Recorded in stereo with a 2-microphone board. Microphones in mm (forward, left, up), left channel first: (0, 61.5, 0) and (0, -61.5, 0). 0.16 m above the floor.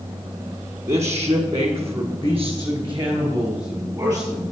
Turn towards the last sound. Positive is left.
turn(degrees=-15)  # may be behind; listen again after turning